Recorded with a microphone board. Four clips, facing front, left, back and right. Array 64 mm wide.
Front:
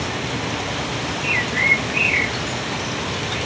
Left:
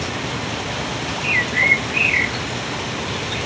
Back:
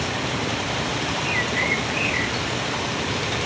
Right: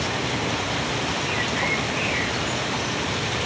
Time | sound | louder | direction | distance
1.2 | a bird | left 11 dB, front 6 dB | 75° left | 1.3 m